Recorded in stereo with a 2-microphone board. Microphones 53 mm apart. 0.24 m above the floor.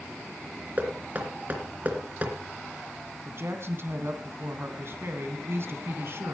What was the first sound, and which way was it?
Knocking, 35° right (ahead or behind).